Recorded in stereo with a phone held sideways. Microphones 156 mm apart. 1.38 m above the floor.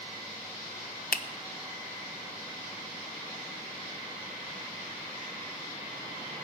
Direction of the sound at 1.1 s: 65° left (ahead or behind).